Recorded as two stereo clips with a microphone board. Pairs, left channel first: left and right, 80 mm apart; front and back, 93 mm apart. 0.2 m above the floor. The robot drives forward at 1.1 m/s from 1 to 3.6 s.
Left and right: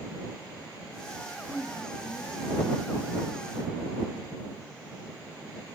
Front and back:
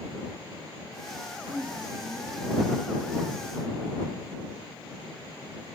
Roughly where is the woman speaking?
Behind.